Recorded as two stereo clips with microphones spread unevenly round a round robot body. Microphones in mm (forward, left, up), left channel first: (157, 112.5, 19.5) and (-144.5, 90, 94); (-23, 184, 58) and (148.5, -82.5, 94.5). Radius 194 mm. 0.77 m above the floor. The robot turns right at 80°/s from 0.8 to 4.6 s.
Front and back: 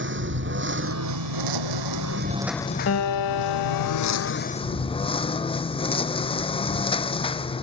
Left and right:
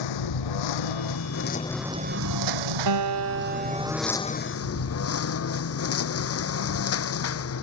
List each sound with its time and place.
0.0 s a lawn mower: 135° left; by 7.6 s 80° left
2.9 s a guitar: 60° right; by 4.3 s 55° left